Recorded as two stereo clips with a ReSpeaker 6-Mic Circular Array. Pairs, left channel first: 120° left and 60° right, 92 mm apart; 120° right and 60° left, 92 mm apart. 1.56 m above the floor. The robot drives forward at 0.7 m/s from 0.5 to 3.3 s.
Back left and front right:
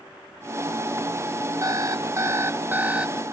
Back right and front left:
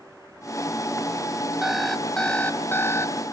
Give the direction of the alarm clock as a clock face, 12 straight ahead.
1 o'clock.